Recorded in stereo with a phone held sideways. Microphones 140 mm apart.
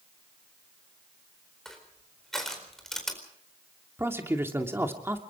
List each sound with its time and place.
1.6 s crushing: 5° left (ahead or behind), 4.5 m
4.0 s a man speaking: 15° right (ahead or behind), 2.5 m